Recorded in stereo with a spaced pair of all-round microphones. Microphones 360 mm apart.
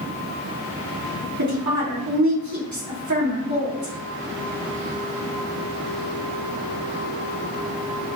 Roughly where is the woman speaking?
Right.